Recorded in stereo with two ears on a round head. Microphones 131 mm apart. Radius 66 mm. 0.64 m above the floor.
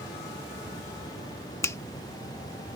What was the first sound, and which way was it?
A finger snap, 20° left (ahead or behind).